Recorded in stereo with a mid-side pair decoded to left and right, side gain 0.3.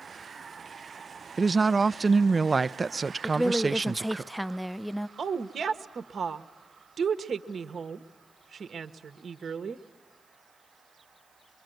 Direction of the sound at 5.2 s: 65° right.